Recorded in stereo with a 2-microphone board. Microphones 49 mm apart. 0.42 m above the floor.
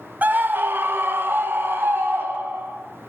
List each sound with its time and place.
0.2 s a scream: 35° right (ahead or behind), 0.9 m; by 2.8 s 50° right (ahead or behind), 3 m